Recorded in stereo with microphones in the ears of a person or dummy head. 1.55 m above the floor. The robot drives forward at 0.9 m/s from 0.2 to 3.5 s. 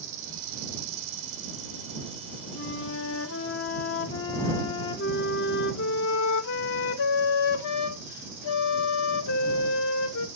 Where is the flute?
50° left (ahead or behind), 0.9 m; by 10.3 s 65° left (ahead or behind), 0.7 m.